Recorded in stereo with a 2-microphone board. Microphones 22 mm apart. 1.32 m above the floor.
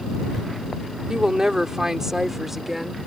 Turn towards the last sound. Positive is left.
turn(degrees=-5)  # may be behind; listen again after turning